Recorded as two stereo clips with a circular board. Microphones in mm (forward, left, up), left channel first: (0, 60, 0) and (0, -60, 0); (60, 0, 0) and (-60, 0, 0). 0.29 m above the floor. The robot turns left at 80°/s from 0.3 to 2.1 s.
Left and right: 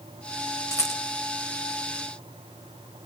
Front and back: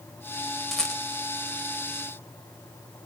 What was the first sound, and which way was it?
A rattle, 85° left.